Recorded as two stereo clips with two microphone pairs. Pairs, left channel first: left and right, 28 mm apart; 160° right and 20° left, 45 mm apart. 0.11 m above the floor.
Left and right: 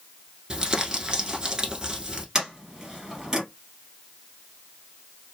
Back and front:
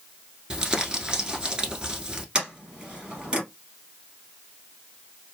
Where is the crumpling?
40° right, 0.8 m.